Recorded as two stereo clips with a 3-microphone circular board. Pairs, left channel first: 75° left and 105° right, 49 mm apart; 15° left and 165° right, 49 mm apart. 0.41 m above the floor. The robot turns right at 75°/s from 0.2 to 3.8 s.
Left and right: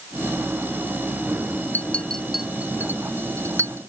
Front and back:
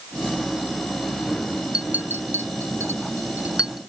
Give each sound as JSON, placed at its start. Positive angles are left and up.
{"t": 1.7, "sound": "a clink", "azimuth_deg": 125}